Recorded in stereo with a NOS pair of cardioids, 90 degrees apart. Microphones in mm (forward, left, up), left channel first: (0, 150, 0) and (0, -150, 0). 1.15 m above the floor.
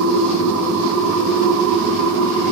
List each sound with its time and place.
0.0 s a machine running: 45° right, 1.8 m